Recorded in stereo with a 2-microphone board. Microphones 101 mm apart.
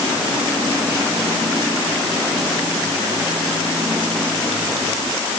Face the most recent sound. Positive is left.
No sound to turn to.